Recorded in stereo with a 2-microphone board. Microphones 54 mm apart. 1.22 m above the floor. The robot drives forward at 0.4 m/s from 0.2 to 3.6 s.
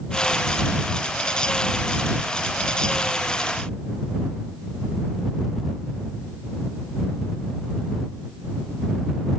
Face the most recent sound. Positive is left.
No sound to turn to.